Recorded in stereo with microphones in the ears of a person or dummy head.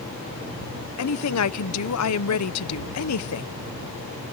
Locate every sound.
1.0 s a woman speaking: 90° left